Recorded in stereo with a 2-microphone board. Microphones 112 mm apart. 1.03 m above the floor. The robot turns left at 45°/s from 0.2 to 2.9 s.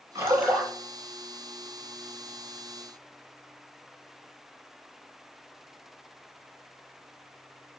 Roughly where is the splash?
Right.